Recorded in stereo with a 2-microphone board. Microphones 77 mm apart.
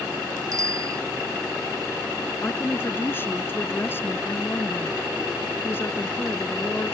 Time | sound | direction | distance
0.5 | a bicycle bell | 45° right (ahead or behind) | ?
2.4 | a woman speaking | 25° left (ahead or behind) | ?